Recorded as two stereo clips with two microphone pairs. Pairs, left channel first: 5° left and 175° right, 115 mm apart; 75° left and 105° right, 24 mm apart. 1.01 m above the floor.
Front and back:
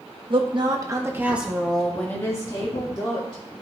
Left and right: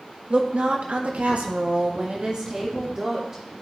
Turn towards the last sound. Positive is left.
turn(degrees=-40)